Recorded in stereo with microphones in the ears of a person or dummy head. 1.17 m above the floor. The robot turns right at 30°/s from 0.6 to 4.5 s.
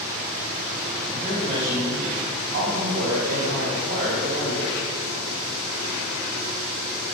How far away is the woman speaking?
About 1.2 m.